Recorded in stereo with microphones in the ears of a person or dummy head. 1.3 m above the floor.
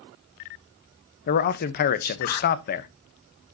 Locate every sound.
1.3 s a man speaking: 45° left (ahead or behind), 0.8 m